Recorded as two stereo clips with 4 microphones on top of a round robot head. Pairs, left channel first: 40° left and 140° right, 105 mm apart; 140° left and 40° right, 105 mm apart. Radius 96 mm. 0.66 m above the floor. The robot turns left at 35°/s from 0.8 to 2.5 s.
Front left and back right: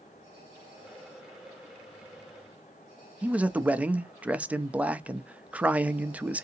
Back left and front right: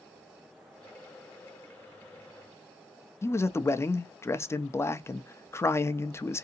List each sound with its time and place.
3.2 s a man speaking: 160° left, 0.5 m